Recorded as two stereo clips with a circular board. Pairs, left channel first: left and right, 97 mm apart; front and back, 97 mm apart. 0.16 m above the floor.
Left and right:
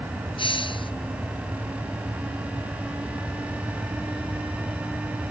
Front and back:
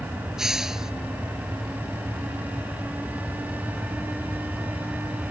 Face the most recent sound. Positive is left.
turn(degrees=95)